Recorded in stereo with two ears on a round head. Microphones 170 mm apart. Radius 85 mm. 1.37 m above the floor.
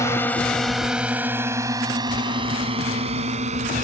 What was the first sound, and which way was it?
A drone, 15° left (ahead or behind).